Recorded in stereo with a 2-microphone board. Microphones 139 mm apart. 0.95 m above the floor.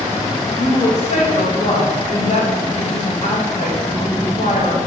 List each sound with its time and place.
0.6 s a woman speaking: 60° left (ahead or behind), 1.3 m